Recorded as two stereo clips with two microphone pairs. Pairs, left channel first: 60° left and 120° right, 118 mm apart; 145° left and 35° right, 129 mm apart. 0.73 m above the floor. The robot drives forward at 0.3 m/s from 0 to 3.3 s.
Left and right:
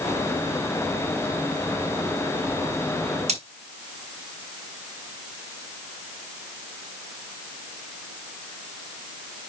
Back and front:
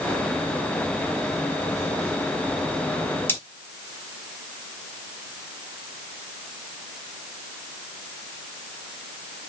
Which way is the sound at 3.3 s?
140° right.